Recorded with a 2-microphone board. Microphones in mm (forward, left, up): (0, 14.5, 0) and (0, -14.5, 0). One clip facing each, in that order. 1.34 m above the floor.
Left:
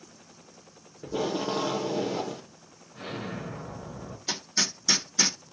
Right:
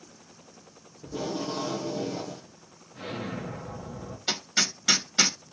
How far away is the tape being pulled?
About 0.6 m.